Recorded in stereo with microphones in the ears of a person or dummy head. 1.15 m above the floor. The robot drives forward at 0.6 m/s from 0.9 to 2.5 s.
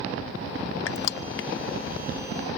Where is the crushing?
65° left (ahead or behind), 0.6 m; by 1.5 s 45° left (ahead or behind), 0.7 m.